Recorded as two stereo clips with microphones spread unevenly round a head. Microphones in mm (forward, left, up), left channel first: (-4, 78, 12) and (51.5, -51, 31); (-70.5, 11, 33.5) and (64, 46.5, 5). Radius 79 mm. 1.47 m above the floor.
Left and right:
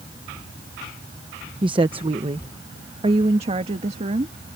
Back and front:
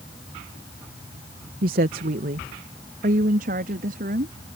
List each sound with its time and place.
1.6 s a woman speaking: 10° right; by 4.3 s 20° right